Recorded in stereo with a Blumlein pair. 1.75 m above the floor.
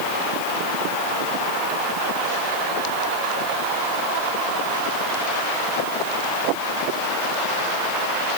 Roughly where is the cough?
No cough in this recording.